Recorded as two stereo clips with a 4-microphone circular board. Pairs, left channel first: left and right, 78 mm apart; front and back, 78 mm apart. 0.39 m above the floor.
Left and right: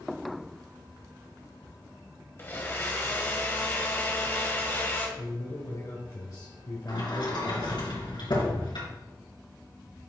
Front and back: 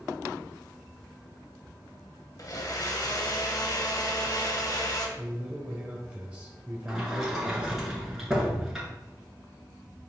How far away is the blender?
About 1.5 m.